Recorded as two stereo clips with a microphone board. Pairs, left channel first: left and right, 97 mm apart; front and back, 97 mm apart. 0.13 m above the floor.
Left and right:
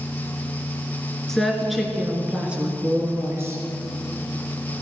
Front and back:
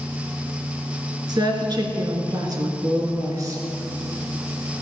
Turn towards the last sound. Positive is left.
turn(degrees=-145)